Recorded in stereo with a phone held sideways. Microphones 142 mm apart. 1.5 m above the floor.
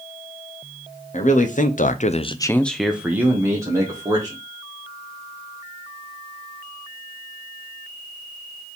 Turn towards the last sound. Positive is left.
turn(degrees=-25)  # may be behind; listen again after turning